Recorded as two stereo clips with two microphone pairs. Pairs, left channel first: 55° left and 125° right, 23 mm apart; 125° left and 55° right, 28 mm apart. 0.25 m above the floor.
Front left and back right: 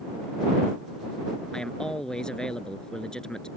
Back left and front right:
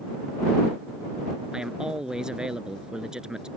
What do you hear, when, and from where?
1.5 s a man speaking: 5° left